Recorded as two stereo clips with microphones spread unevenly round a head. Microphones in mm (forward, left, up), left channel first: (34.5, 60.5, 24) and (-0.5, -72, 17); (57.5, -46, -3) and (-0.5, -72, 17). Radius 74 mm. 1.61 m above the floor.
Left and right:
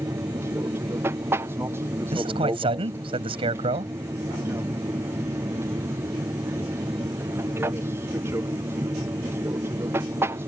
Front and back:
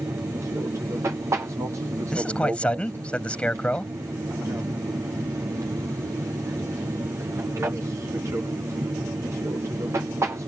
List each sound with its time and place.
0.0 s an aircraft: 145° right
2.1 s a man speaking: 50° right